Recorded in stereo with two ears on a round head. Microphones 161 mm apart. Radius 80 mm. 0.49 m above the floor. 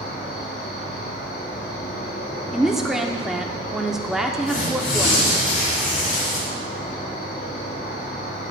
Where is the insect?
45° left (ahead or behind), 4 m.